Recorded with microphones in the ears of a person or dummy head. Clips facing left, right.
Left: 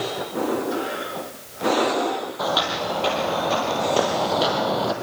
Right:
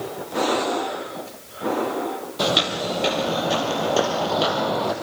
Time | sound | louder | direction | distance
2.4 | footsteps | right 4 dB | 30° right (ahead or behind) | 2.5 m